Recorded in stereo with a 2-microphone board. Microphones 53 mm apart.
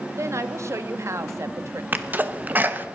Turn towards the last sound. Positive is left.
turn(degrees=-30)  # may be behind; listen again after turning